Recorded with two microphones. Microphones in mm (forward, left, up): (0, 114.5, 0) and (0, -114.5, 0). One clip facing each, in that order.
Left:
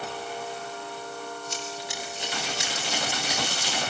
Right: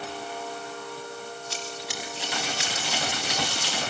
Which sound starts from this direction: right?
Running footsteps, at 1.5 s.